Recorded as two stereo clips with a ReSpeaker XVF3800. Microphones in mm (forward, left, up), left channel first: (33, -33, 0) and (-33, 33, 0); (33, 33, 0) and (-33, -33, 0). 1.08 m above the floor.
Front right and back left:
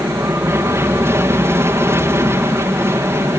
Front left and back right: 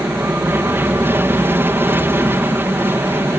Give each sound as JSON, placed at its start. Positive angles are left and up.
{"t": 0.0, "sound": "an aircraft", "azimuth_deg": 175}